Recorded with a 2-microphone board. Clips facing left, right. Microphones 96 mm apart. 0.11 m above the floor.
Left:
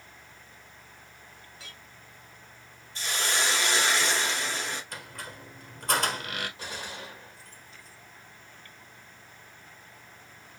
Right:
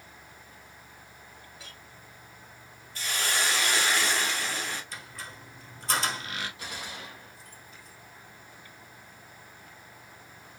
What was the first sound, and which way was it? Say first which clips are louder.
A clink: even; centre (ahead or behind).